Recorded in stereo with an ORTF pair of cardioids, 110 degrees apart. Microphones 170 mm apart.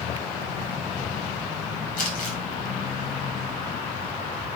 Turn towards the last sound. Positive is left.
turn(degrees=55)